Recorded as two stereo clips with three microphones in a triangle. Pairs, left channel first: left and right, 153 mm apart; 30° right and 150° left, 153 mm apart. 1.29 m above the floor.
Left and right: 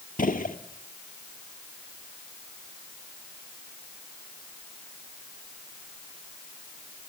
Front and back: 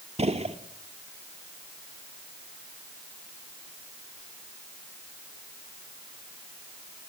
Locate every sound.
0.2 s a gunshot: 105° left, 1.5 m